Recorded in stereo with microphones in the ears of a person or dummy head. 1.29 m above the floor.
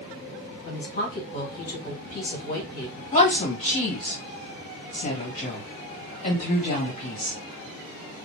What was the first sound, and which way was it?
A woman speaking, 45° left (ahead or behind).